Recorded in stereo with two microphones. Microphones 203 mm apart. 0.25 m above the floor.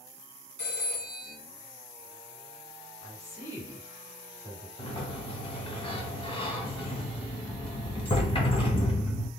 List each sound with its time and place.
0.6 s a phone ringing: 35° left (ahead or behind), 2.0 m
3.0 s a woman speaking: 35° left (ahead or behind), 1.8 m
4.8 s a sliding door: 25° left (ahead or behind), 0.8 m